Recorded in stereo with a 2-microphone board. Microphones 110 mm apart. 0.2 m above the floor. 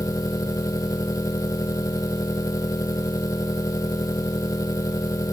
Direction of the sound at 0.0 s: 30° left (ahead or behind).